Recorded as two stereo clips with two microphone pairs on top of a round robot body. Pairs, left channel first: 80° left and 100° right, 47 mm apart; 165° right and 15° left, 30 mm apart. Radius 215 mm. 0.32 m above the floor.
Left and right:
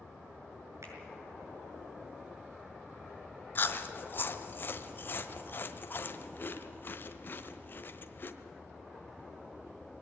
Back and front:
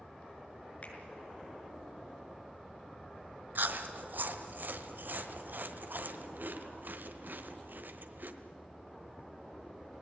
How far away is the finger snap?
About 6.5 m.